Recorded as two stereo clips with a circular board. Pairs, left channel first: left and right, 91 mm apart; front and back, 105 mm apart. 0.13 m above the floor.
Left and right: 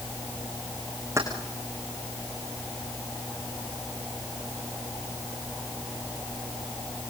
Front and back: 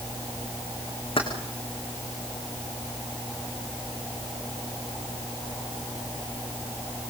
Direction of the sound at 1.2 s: 30° right.